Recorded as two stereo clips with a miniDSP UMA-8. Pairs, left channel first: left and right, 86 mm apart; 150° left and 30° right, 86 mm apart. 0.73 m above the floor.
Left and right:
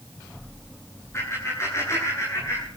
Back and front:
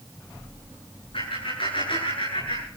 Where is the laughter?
145° left, 9 m.